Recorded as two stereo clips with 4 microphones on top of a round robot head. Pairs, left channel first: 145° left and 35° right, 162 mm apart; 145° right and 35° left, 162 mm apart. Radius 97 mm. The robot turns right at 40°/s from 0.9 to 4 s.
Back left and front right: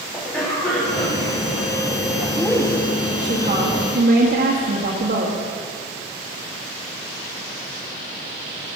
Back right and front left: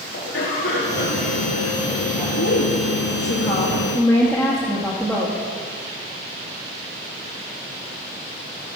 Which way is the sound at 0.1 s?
135° right.